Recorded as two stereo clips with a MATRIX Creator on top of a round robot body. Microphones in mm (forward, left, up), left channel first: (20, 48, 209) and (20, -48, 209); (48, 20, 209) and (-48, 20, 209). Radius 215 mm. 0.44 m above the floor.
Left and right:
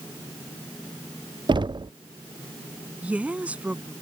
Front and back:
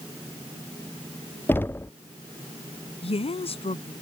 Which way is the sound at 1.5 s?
65° right.